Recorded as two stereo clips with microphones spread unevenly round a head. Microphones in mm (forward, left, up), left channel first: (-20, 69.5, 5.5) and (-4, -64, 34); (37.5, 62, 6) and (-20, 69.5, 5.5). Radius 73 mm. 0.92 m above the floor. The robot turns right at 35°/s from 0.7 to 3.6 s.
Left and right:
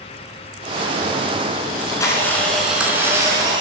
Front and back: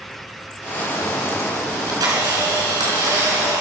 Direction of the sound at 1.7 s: 155° left.